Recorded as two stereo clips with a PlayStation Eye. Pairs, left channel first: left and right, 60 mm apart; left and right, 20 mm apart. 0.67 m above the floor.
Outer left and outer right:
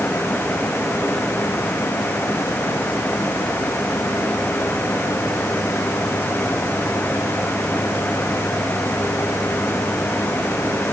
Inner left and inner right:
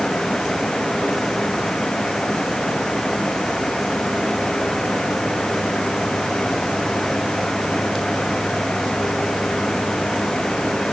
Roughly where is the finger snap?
No finger snap in this recording.